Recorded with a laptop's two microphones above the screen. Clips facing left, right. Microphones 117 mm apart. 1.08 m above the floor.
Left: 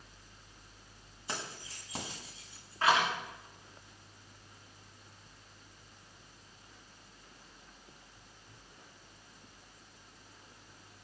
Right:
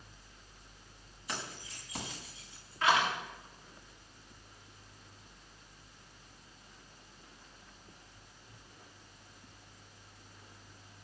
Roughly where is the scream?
I don't hear a scream.